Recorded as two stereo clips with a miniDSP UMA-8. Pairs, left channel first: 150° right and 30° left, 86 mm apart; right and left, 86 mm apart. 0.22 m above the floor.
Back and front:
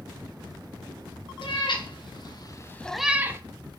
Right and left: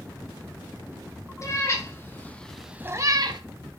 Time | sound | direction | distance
1.4 | a cat meowing | 140° right | 1.6 m